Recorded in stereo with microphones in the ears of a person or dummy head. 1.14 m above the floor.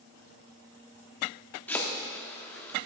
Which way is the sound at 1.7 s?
10° left (ahead or behind).